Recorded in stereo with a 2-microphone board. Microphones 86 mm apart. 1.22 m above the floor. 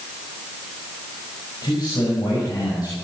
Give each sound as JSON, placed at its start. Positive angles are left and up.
{"t": 1.6, "sound": "a man speaking", "side_deg": 55, "distance_m": 6.5}